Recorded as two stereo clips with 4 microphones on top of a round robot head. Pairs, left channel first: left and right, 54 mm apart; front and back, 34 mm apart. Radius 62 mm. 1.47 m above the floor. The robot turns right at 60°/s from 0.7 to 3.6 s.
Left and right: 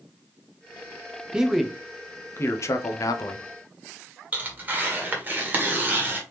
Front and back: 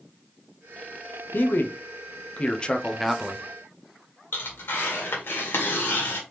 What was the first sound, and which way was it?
A man speaking, 15° right.